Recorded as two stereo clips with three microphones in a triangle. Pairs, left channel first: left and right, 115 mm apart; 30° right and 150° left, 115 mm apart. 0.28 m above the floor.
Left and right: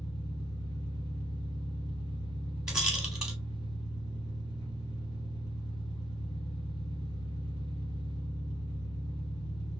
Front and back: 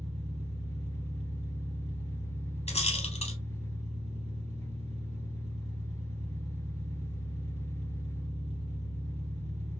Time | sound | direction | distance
0.0 | an engine running | 145° left | 1.5 m
2.7 | a rattle | 5° right | 1.0 m